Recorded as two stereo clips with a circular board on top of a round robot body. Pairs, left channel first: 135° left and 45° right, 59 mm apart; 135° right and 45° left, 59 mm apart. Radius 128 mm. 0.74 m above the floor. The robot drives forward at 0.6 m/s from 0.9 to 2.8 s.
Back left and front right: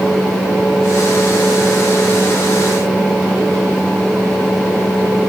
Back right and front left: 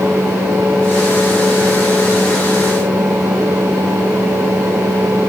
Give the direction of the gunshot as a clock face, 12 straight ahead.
I don't hear a gunshot.